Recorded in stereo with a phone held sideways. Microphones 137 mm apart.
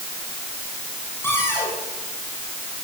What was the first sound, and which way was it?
A cupboard door, 15° left (ahead or behind).